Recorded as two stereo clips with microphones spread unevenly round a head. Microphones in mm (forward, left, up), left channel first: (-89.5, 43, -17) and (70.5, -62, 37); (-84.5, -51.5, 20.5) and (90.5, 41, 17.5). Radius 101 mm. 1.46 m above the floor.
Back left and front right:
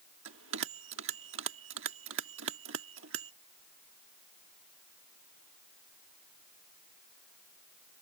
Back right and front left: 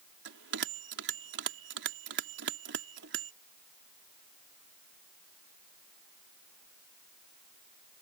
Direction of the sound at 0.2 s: 5° right.